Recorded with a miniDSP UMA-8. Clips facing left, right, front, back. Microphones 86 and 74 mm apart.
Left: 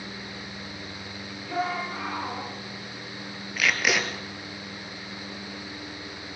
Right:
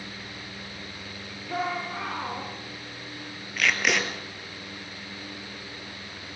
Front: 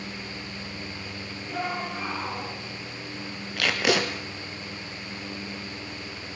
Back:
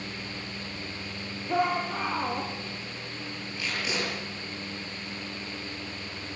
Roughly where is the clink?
No clink in this recording.